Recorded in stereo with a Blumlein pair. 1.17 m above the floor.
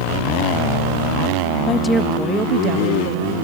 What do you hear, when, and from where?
1.7 s a woman speaking: 25° left, 1.1 m; by 3.3 s 50° right, 2 m